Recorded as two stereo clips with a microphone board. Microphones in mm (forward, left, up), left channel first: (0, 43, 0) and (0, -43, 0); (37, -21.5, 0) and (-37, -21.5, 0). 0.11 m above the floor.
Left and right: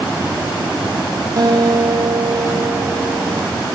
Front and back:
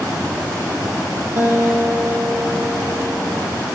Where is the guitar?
120° right, 2.5 m.